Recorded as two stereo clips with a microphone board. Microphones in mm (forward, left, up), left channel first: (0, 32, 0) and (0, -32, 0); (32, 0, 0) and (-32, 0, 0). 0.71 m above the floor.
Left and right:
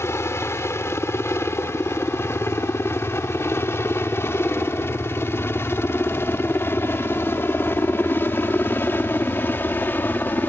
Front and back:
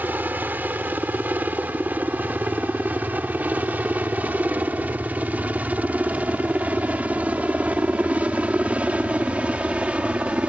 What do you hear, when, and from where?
0.0 s a helicopter: 125° left; by 10.5 s 120° left